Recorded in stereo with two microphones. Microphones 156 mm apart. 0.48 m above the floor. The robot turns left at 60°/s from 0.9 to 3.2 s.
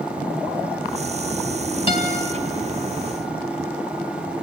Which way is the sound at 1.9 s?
35° left (ahead or behind).